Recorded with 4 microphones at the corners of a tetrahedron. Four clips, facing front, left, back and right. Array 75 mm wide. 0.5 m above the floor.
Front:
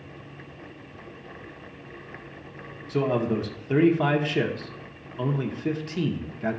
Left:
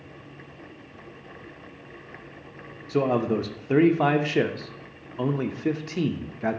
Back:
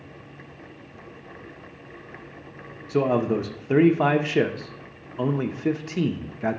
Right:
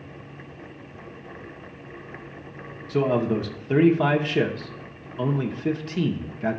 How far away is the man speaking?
About 0.6 m.